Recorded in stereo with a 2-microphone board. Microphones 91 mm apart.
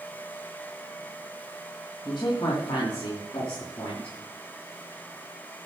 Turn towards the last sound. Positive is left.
turn(degrees=75)  # may be behind; listen again after turning